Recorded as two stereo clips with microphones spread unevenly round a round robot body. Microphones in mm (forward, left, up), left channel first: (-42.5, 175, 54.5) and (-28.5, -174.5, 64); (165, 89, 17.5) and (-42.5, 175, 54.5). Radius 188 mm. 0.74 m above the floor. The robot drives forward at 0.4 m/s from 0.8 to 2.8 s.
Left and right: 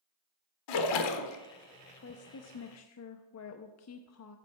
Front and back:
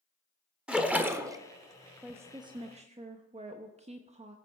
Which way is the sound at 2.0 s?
65° left.